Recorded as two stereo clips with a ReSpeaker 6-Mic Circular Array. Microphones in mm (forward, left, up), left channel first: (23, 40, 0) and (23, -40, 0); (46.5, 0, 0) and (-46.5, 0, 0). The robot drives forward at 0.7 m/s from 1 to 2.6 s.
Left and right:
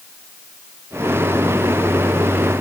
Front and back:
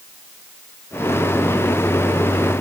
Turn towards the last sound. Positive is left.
No sound to turn to.